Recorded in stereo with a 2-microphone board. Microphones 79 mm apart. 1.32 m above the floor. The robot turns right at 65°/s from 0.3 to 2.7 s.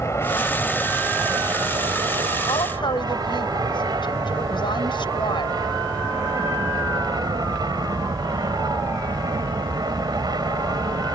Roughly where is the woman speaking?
Left.